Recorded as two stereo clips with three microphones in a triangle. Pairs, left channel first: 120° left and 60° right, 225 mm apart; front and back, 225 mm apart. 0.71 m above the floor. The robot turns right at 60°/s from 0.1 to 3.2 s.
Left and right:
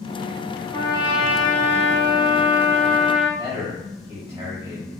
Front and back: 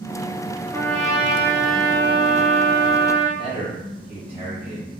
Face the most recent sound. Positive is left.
turn(degrees=-135)